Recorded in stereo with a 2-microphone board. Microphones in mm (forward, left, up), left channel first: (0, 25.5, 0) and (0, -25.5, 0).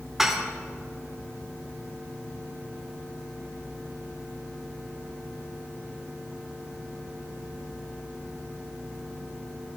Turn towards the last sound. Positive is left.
turn(degrees=-5)  # may be behind; listen again after turning